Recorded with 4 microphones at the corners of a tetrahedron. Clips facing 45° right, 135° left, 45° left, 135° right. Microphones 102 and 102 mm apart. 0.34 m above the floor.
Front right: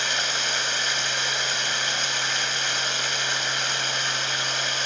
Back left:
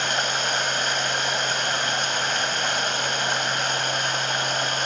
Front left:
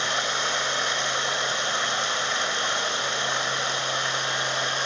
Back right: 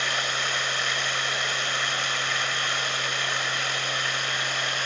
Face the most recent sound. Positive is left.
turn(degrees=105)